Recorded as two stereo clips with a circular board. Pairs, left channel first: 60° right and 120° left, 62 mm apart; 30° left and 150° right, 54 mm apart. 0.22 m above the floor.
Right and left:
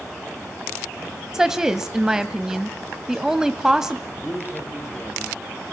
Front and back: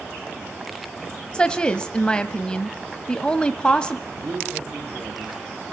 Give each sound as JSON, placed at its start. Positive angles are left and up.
{"t": 1.3, "sound": "a woman speaking", "azimuth_deg": 55, "distance_m": 1.0}
{"t": 4.1, "sound": "a man speaking", "azimuth_deg": -125, "distance_m": 6.0}